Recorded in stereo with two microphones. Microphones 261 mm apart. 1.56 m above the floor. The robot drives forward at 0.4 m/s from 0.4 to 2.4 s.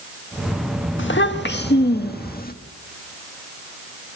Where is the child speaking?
45° left (ahead or behind), 1.5 m; by 2.5 s 35° left (ahead or behind), 1.8 m.